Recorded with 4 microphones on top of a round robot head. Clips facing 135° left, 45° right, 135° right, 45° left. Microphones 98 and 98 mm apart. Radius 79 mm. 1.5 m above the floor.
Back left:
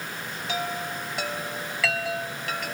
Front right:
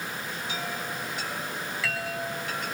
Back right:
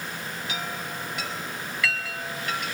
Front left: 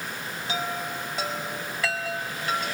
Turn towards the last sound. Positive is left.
turn(degrees=110)